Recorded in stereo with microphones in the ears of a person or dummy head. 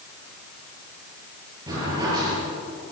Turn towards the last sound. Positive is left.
turn(degrees=-20)  # may be behind; listen again after turning